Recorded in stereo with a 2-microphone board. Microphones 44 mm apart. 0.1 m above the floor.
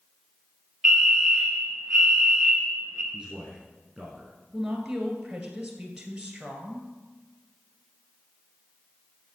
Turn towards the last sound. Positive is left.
turn(degrees=-5)  # may be behind; listen again after turning